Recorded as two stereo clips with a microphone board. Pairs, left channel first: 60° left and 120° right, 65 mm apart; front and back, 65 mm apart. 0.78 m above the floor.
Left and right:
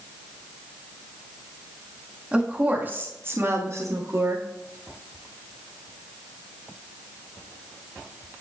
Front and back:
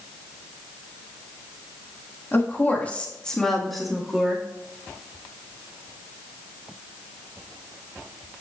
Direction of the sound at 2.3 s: 50° right.